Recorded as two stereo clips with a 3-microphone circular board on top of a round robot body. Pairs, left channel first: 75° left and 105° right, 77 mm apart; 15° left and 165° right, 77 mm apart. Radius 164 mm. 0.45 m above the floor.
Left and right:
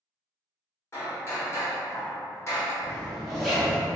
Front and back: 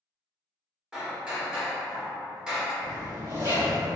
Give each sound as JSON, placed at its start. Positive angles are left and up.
{"t": 0.9, "sound": "hammering", "azimuth_deg": 120, "distance_m": 1.4}
{"t": 2.8, "sound": "a zipper", "azimuth_deg": 165, "distance_m": 1.7}